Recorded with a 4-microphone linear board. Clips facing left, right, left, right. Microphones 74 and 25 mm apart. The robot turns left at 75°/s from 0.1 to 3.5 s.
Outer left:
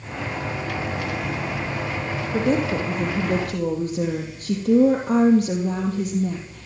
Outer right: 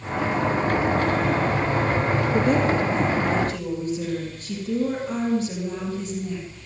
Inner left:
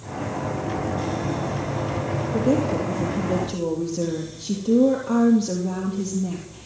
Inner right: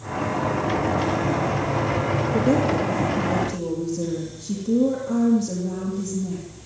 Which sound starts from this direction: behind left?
A woman speaking, at 2.3 s.